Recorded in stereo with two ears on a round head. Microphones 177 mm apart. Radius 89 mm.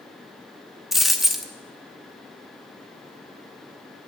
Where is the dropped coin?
Centre (ahead or behind), 0.8 m.